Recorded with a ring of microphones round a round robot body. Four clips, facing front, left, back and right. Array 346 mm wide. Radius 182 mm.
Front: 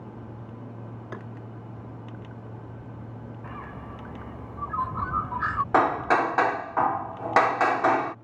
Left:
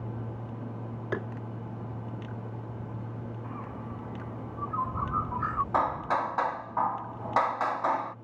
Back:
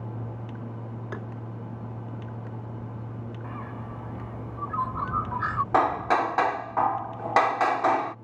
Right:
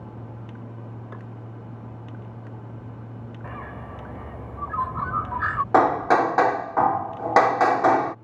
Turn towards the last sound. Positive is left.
turn(degrees=-75)